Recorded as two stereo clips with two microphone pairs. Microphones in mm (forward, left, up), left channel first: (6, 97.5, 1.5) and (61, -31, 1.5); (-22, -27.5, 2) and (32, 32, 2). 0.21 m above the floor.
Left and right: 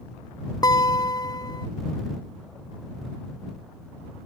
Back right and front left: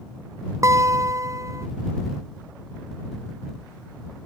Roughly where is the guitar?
Ahead left.